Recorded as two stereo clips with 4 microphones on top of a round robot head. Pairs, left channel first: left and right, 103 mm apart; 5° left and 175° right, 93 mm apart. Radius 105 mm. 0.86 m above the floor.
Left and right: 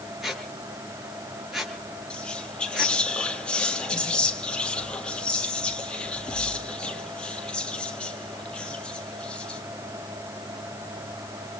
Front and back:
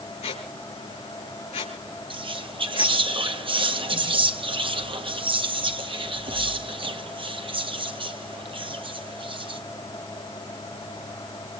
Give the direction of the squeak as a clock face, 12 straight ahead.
12 o'clock.